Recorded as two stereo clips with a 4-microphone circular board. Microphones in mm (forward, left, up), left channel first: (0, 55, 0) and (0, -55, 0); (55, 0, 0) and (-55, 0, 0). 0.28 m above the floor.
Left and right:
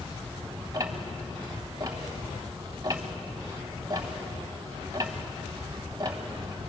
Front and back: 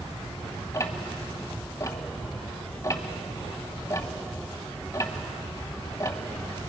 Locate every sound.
0.7 s ticking: 45° right, 1.2 m